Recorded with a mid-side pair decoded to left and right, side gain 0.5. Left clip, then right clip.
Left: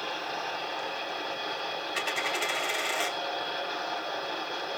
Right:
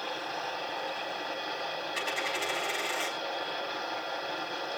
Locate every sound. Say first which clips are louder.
0.0 s a machine running: left 2 dB; 10° left, 4.5 m
1.9 s a dropped coin: left 3 dB; 25° left, 4 m